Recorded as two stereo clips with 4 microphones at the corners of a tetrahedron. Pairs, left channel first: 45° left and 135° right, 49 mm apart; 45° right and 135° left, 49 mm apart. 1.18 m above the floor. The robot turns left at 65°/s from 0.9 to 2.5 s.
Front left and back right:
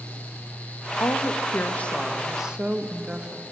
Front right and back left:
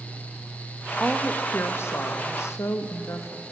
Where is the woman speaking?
35° left, 1.3 m; by 3.4 s 65° right, 1.3 m.